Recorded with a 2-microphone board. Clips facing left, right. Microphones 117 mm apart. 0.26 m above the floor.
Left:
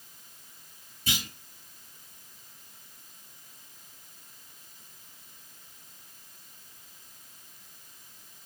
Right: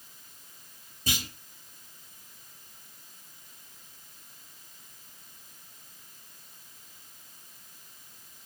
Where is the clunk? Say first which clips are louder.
Right 1 dB; 35° right (ahead or behind), 2.0 m.